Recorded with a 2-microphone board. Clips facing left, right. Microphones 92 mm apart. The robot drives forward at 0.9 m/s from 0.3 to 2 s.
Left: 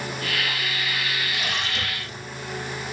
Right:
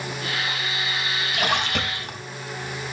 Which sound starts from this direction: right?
A splash, at 1.3 s.